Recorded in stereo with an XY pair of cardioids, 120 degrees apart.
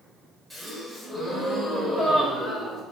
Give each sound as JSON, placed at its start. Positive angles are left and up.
{"t": 0.5, "sound": "a gasp", "azimuth_deg": -5, "distance_m": 4.0}